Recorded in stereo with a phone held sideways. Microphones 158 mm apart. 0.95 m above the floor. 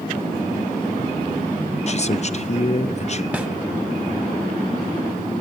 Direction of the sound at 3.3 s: 10° right (ahead or behind).